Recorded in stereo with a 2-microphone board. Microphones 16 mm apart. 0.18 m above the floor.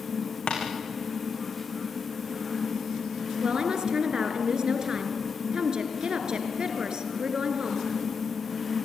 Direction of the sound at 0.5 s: 80° left.